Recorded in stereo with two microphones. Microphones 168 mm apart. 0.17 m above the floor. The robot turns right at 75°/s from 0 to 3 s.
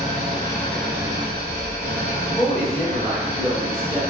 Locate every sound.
0.0 s an engine running: 120° left, 0.8 m; by 4.1 s 15° right, 0.8 m
2.3 s a woman speaking: 10° left (ahead or behind), 1.0 m; by 4.0 s 5° right (ahead or behind), 1.0 m